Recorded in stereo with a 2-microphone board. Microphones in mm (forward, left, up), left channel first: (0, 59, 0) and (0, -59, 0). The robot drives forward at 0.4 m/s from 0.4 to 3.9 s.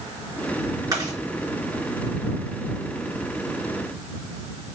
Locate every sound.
0.9 s chewing: 30° right (ahead or behind), 3 m